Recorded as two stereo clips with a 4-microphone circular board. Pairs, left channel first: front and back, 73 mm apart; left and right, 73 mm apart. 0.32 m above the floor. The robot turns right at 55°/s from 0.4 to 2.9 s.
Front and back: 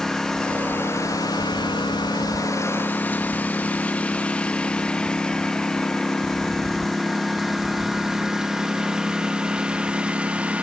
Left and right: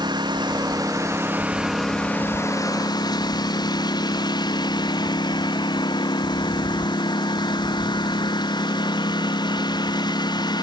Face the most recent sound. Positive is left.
turn(degrees=105)